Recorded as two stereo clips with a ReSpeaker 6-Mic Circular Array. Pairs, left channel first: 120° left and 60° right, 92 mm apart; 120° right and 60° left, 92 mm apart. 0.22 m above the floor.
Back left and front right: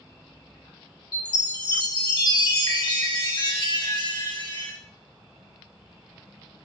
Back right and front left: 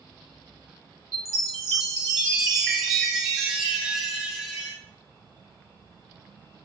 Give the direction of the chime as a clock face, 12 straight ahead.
7 o'clock.